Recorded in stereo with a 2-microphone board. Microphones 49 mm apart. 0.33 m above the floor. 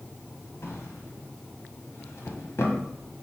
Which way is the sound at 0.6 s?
60° left (ahead or behind).